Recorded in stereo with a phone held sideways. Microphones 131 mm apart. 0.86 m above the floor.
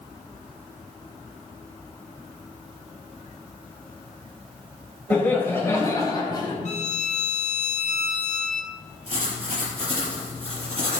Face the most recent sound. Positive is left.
turn(degrees=-45)  # may be behind; listen again after turning